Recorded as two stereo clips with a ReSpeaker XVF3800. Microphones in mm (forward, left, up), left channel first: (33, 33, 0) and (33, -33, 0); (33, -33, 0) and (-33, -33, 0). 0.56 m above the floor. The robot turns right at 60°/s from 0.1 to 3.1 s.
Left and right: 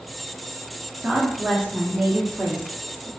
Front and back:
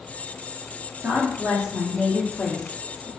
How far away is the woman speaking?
About 0.9 m.